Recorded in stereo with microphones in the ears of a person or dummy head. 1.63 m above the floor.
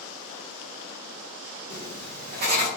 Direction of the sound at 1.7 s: 50° right (ahead or behind).